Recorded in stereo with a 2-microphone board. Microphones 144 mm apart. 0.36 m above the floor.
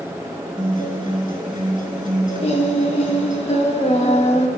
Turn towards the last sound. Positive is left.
turn(degrees=45)  # may be behind; listen again after turning